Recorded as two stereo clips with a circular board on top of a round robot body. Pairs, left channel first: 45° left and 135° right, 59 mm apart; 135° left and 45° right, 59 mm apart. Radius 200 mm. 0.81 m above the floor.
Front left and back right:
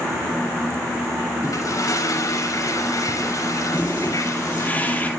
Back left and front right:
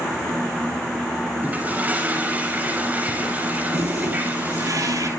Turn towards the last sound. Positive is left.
turn(degrees=-15)